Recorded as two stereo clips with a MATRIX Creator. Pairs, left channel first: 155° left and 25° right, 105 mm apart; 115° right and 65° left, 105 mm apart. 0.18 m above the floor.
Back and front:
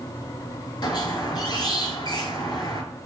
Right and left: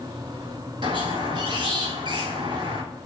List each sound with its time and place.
0.8 s a squeak: 110° left, 0.6 m